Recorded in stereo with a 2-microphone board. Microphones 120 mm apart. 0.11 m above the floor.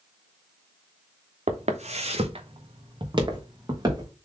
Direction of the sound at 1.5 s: 85° right.